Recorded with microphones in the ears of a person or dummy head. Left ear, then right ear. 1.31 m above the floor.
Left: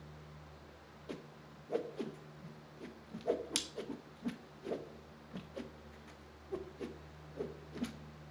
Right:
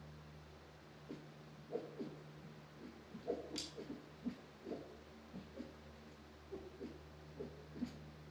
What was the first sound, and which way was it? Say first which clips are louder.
A whoosh: left 6 dB; 35° left (ahead or behind).